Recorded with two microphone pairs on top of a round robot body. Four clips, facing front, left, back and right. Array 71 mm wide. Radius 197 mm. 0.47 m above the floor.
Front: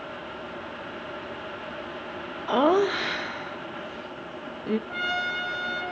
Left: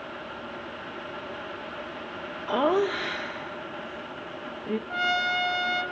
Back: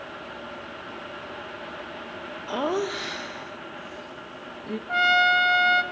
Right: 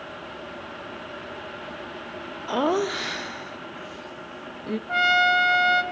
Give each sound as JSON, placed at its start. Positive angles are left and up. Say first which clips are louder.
{"t": 2.5, "sound": "laughter", "louder": "even, front 6 dB", "azimuth_deg": -10, "distance_m": 0.7}
{"t": 4.9, "sound": "a trumpet", "louder": "right 8 dB, back 9 dB", "azimuth_deg": -125, "distance_m": 1.0}